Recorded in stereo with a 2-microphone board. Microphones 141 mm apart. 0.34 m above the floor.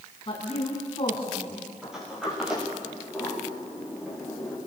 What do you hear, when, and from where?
0.3 s a woman speaking: 40° left (ahead or behind), 3.5 m
1.8 s a sliding door: 5° right (ahead or behind), 8 m